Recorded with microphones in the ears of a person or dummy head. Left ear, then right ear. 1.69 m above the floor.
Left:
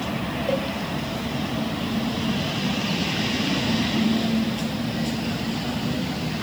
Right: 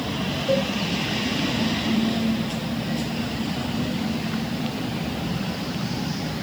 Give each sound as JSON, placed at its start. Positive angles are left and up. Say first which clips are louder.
{"t": 0.5, "sound": "a cowbell", "louder": "right 3 dB", "side_deg": -10, "distance_m": 1.8}